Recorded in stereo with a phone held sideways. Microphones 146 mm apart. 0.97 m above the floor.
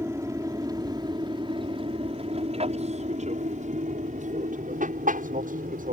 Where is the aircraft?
20° right (ahead or behind); by 5.9 s 70° right (ahead or behind).